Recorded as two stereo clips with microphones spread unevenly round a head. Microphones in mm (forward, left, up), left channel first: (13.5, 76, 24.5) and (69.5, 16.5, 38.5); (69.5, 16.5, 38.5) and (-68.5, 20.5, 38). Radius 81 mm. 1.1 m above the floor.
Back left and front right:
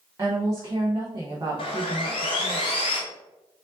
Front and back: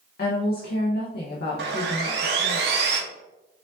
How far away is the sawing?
About 0.9 m.